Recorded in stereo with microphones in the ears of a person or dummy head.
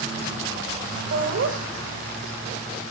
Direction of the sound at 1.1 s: 70° right (ahead or behind).